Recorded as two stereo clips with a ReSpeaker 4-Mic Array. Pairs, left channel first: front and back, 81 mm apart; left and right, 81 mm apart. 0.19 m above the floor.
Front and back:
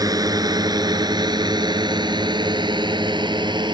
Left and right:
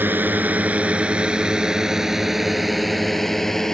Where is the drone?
150° right; by 3.7 s 175° left.